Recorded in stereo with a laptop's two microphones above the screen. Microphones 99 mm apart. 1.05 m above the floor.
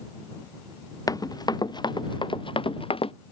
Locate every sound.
1.1 s running footsteps: 35° left (ahead or behind); by 3.1 s 65° left (ahead or behind)